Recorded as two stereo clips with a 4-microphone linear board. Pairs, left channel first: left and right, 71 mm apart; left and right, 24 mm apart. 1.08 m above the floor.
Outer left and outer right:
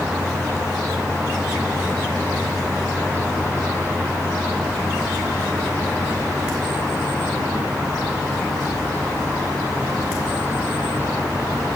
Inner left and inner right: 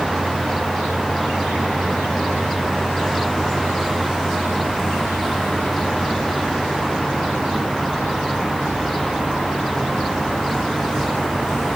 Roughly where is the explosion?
No explosion in this recording.